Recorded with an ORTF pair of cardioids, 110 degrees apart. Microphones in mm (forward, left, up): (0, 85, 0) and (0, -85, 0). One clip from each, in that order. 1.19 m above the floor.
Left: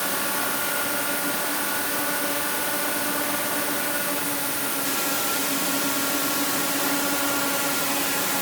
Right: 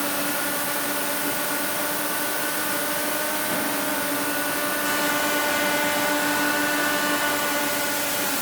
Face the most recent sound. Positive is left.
No sound to turn to.